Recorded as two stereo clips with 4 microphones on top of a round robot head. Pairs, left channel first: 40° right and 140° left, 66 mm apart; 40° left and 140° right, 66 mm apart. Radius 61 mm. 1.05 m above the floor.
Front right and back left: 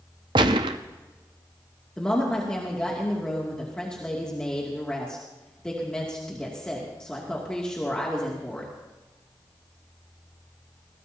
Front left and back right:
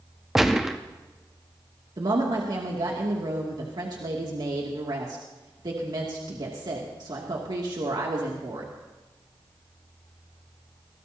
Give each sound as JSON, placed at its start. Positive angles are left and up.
{"t": 0.3, "sound": "a gunshot", "azimuth_deg": 135, "distance_m": 0.7}
{"t": 2.0, "sound": "a woman speaking", "azimuth_deg": -120, "distance_m": 2.5}